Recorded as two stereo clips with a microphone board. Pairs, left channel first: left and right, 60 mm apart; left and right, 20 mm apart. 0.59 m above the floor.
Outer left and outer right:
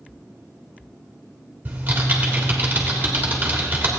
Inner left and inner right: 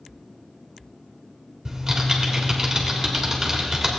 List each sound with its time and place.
1.6 s typing on a keyboard: 30° right (ahead or behind), 1.7 m